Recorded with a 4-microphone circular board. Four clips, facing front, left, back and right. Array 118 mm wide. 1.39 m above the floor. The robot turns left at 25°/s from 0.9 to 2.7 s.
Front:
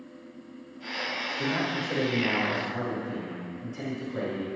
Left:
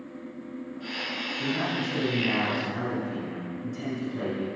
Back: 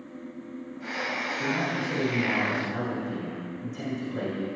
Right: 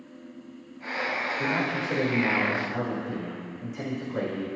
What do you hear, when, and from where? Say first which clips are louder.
1.4 s a man speaking: left 1 dB, even; 45° right, 5 m; by 4.6 s 80° right, 5 m